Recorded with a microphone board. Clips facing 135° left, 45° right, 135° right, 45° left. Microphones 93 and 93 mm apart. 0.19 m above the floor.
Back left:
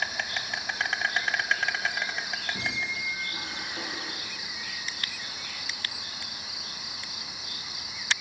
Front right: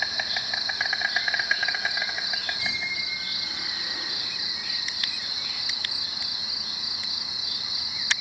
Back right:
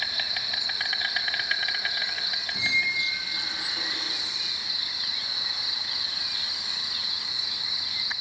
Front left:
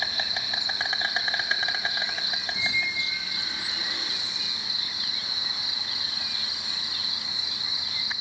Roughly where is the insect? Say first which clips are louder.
Front right 1 dB, front left 2 dB; ahead left.